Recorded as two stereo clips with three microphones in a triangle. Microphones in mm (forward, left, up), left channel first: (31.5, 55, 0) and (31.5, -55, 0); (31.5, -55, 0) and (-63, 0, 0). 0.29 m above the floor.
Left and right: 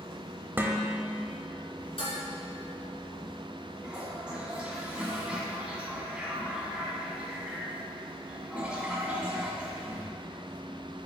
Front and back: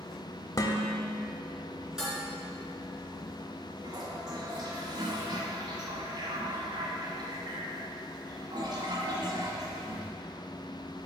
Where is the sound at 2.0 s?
65° left, 2.5 m.